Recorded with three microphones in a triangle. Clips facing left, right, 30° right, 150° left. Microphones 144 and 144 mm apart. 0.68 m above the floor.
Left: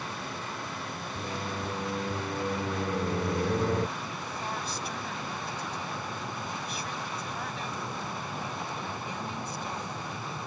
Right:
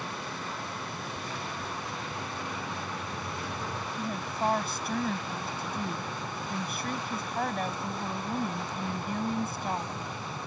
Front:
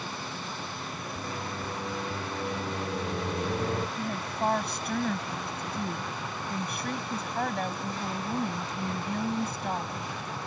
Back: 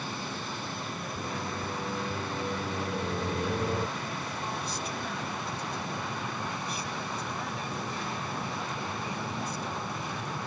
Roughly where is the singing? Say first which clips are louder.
Left 3 dB, back 1 dB; ahead left.